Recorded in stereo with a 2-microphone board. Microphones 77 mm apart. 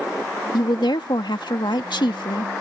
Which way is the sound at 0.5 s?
80° left.